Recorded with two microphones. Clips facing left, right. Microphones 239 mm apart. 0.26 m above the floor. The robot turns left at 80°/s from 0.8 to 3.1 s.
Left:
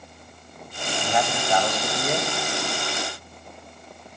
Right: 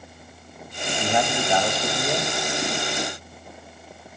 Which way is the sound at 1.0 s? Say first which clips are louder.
Right 2 dB; 25° right (ahead or behind).